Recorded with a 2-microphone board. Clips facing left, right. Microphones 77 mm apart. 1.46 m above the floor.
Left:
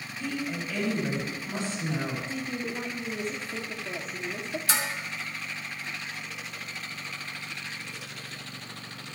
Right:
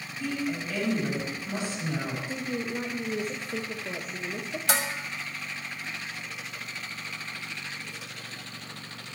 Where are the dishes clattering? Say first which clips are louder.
Right 3 dB; 65° right (ahead or behind), 1.2 m.